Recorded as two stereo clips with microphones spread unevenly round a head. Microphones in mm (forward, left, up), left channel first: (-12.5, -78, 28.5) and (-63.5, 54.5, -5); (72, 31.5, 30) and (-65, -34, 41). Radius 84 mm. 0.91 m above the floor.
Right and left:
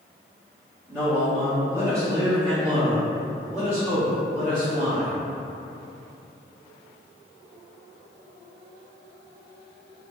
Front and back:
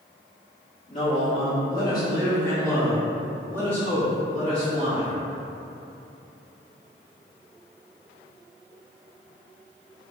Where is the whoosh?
No whoosh in this recording.